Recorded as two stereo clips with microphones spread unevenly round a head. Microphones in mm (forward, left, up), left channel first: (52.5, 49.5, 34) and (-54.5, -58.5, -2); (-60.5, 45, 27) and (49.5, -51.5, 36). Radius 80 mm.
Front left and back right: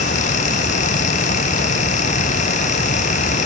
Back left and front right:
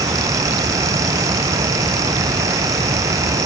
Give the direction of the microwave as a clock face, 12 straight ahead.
No microwave in this recording.